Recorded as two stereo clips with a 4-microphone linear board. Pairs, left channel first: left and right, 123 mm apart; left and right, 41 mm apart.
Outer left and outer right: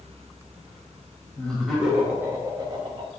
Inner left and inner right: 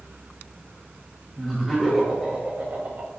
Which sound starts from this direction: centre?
Laughter, at 1.4 s.